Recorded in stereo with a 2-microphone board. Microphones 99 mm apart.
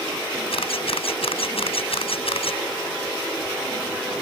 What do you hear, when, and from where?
0.5 s a camera shutter: 75° left (ahead or behind)